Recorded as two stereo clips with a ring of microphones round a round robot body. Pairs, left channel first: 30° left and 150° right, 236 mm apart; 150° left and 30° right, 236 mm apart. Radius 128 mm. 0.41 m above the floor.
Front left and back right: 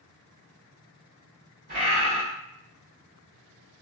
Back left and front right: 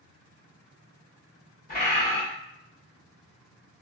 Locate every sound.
1.7 s a bird: straight behind, 1.3 m